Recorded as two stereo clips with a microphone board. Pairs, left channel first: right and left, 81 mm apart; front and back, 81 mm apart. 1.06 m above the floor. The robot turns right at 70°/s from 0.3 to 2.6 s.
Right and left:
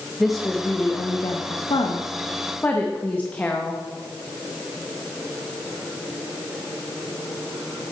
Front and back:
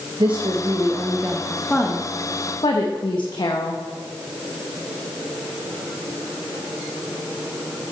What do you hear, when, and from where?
0.2 s a woman speaking: straight behind, 0.8 m; by 3.8 s 20° right, 0.8 m